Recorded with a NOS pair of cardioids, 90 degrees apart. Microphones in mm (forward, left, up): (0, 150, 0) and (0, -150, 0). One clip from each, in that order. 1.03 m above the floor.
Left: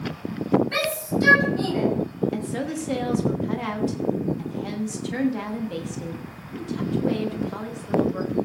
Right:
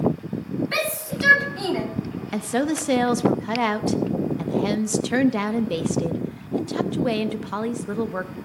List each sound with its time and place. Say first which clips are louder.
0.7 s a shout: left 1 dB; 45° right, 7 m
2.3 s a woman speaking: right 5 dB; 55° right, 1.0 m